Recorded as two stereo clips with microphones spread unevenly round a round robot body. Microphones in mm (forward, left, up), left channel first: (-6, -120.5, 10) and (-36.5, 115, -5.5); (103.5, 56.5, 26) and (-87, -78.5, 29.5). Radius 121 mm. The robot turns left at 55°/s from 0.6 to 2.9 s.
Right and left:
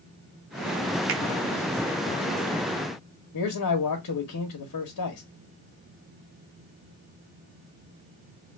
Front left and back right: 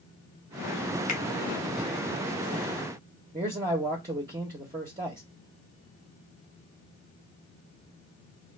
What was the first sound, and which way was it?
A finger snap, 90° left.